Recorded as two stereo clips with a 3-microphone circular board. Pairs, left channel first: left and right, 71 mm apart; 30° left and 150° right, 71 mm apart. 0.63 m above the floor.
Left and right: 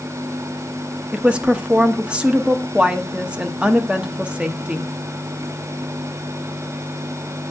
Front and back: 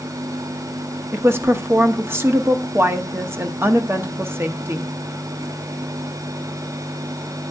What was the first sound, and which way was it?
A woman speaking, 150° right.